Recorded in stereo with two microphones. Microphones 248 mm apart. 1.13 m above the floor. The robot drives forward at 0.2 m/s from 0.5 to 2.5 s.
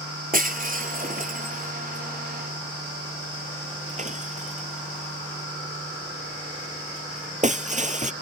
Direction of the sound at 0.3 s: 35° right (ahead or behind).